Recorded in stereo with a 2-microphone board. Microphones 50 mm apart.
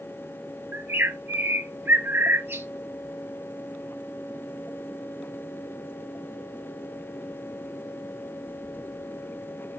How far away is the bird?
About 2.5 m.